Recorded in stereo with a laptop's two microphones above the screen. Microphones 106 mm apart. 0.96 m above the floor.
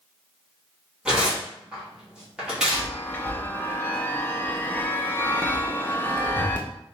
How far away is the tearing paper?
About 1.4 m.